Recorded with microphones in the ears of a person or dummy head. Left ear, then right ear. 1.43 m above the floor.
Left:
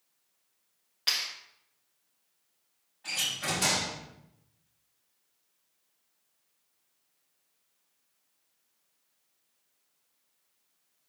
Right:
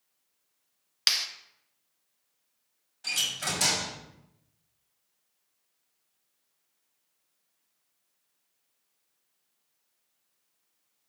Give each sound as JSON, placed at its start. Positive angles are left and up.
{"t": 1.1, "sound": "a clap", "side_deg": -70, "distance_m": 1.7}
{"t": 3.0, "sound": "a door slam", "side_deg": -80, "distance_m": 6.0}